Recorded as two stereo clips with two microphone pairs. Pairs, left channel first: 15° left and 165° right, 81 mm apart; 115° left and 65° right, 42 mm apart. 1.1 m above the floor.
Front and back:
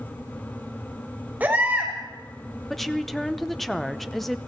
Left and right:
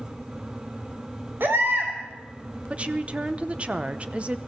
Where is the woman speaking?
75° right, 0.7 m.